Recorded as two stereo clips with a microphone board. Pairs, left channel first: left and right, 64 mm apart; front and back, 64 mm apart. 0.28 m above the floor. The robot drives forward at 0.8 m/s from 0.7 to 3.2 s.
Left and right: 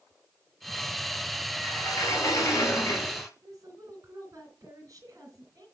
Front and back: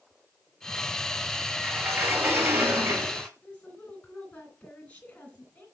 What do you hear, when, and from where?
1.6 s a sliding door: 115° left, 3 m; by 3.3 s 130° left, 4 m
3.4 s a woman speaking: 70° right, 3.5 m